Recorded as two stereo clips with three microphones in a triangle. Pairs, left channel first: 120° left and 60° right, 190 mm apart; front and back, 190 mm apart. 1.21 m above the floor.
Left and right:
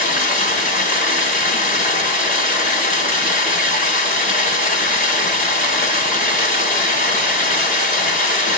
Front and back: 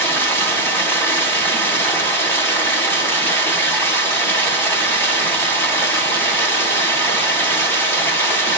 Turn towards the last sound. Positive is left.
turn(degrees=80)